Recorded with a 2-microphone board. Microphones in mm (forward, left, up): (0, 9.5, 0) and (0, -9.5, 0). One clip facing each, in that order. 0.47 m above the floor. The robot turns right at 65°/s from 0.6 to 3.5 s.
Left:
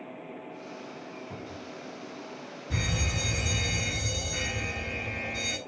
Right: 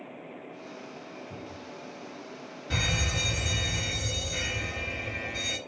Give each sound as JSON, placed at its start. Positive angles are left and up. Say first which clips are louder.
{"t": 1.3, "sound": "a cupboard door", "louder": "left 1 dB", "side_deg": 40, "distance_m": 2.0}
{"t": 2.7, "sound": "a fire alarm", "louder": "right 3 dB", "azimuth_deg": -50, "distance_m": 4.0}